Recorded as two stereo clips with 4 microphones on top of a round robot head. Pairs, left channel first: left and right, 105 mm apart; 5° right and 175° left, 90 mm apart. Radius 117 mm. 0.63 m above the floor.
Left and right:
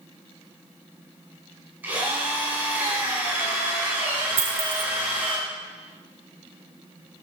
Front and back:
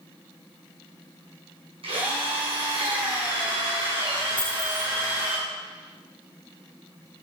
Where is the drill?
165° right, 8 m.